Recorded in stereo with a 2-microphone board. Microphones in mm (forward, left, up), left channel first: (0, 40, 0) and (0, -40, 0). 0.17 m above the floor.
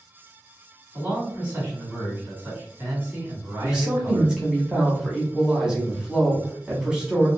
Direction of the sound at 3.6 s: 10° right (ahead or behind).